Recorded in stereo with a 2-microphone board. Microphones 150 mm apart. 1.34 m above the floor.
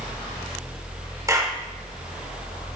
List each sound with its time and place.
1.3 s a clap: 20° right (ahead or behind), 2 m